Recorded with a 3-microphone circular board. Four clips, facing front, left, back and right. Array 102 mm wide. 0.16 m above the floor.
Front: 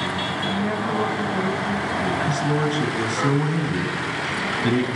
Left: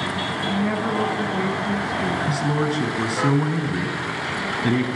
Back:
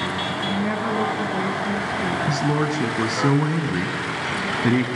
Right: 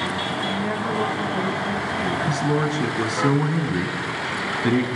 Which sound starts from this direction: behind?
A man speaking, at 2.3 s.